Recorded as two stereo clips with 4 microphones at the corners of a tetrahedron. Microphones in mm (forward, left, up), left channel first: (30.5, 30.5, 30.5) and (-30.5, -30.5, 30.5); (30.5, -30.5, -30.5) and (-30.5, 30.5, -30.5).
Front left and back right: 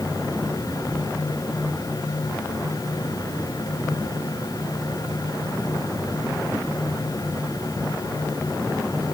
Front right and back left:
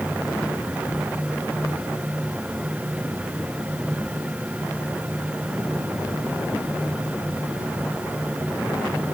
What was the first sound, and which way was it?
Only background noise.